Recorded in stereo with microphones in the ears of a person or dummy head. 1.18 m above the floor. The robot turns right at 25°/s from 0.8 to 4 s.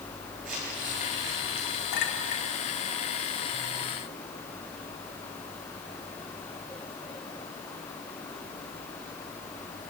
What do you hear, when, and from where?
0.5 s crumpling: 65° right (ahead or behind), 9 m; by 1.7 s 85° right, 9 m
1.9 s a clink: 55° left (ahead or behind), 1.9 m; by 2.4 s 45° left (ahead or behind), 1.9 m